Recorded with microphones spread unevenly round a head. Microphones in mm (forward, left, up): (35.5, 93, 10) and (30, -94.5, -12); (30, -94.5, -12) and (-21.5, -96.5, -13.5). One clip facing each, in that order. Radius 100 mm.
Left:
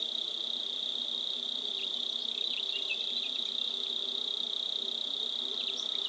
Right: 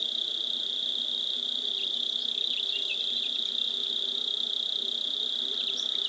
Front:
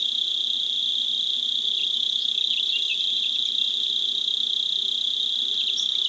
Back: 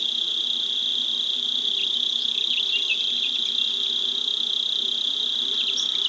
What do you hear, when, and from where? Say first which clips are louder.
0.0 s an insect: right 2 dB, even; 175° right